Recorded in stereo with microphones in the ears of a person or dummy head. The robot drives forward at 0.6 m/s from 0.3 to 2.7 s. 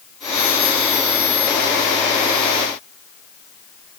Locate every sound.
Only background noise.